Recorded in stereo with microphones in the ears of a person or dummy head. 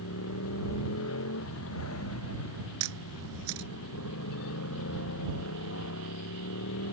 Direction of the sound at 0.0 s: 85° left.